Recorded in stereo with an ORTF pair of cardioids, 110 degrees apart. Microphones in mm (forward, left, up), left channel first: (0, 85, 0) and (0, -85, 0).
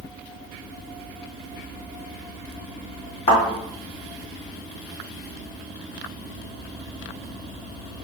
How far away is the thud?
About 1.6 m.